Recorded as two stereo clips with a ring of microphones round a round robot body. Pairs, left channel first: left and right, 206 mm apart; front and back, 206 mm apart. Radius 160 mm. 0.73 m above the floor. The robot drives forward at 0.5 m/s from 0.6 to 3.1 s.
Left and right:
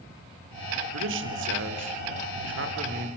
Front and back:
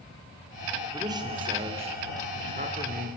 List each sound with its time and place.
0.9 s a man speaking: 105° right, 2.5 m; by 3.1 s 125° right, 3 m